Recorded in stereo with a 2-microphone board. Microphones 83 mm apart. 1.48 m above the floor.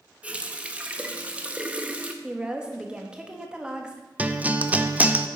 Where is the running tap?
15° right (ahead or behind), 1.0 m.